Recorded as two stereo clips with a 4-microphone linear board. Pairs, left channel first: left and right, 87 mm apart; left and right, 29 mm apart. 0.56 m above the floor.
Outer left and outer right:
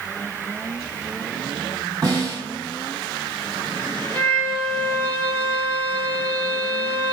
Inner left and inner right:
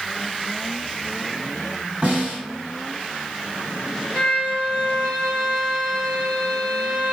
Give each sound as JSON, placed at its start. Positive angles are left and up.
{"t": 2.0, "sound": "a snare drum", "side_deg": -45, "distance_m": 1.8}
{"t": 4.1, "sound": "a violin", "side_deg": -75, "distance_m": 1.1}